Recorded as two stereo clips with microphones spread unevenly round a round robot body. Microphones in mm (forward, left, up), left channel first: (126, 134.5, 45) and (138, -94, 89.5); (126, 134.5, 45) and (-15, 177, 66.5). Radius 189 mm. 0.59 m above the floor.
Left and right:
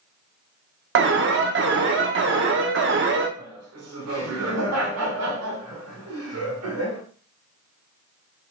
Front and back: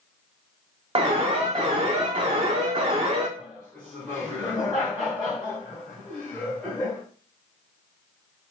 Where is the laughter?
100° right, 2.0 m.